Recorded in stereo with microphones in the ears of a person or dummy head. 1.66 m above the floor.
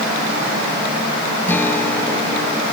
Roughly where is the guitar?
Centre.